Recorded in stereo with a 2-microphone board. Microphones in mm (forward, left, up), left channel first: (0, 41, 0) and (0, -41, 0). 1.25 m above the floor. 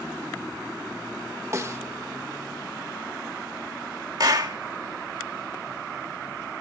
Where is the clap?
55° right (ahead or behind), 1.8 m.